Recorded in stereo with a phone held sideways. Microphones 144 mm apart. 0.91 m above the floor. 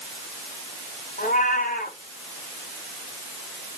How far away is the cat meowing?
About 2.5 m.